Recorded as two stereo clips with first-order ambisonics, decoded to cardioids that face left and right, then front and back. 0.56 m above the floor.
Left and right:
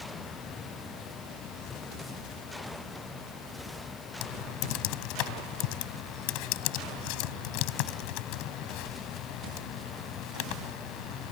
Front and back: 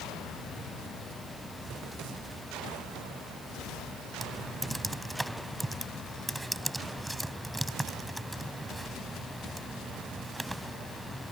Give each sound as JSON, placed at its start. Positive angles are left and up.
{"t": 4.2, "sound": "typing on a keyboard", "azimuth_deg": 95}